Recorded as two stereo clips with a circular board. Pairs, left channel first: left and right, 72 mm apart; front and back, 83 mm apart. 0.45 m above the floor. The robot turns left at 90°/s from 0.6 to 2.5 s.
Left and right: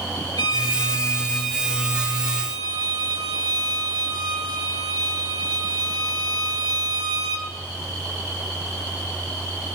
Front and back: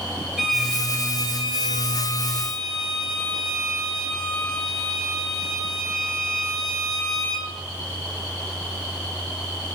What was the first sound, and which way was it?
A violin, 85° left.